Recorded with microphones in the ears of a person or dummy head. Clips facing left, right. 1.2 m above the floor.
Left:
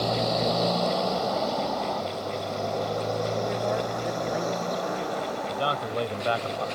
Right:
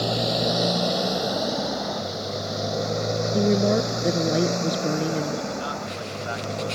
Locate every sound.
0.0 s a motorcycle: 15° right (ahead or behind); by 6.8 s 35° right (ahead or behind)
3.3 s a woman speaking: 60° right (ahead or behind)
5.5 s a man speaking: 85° left